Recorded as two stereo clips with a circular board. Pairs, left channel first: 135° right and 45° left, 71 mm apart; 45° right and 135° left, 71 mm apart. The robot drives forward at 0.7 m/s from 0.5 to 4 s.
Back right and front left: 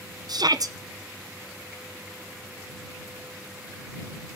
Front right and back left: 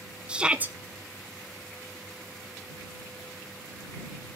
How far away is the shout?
About 0.5 m.